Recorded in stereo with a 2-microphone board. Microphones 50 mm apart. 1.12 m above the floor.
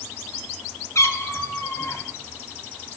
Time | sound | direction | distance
0.9 | a cat meowing | 65° left (ahead or behind) | 1.9 m